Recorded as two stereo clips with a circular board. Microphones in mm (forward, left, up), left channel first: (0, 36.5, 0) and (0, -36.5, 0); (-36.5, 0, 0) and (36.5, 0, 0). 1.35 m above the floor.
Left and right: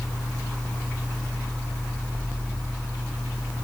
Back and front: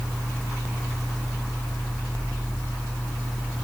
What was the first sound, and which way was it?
Only background noise.